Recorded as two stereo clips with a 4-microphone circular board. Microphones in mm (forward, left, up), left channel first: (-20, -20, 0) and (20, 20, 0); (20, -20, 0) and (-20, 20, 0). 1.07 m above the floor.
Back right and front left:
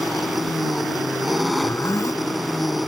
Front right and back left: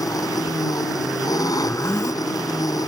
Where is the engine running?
45° right.